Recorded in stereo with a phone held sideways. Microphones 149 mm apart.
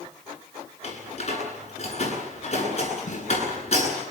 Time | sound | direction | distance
0.8 | a door slam | 45° left (ahead or behind) | 9.5 m
3.1 | a snare drum | 55° left (ahead or behind) | 9 m